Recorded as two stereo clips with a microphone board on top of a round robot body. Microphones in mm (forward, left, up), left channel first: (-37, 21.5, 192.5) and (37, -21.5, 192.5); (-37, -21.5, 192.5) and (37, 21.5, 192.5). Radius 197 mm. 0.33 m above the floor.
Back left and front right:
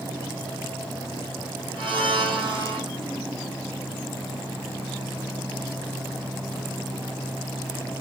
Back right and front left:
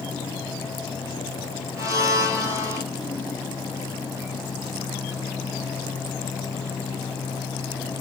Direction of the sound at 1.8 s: 20° right.